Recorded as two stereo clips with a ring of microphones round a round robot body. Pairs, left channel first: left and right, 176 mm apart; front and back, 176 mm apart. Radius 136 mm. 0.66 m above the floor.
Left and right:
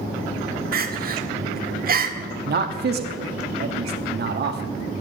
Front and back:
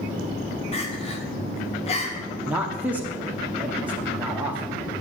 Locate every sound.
0.7 s crying: 60° right, 1.2 m
2.5 s a man speaking: 100° right, 0.9 m